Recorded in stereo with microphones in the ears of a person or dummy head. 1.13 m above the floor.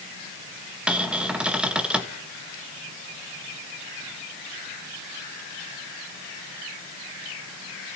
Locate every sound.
0.9 s a cupboard door: 5° right (ahead or behind), 1.1 m